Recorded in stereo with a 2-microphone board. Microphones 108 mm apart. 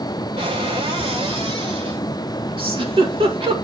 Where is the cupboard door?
65° right (ahead or behind), 6 m.